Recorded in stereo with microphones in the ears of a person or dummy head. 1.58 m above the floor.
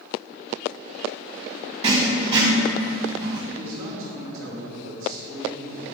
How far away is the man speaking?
About 1.3 m.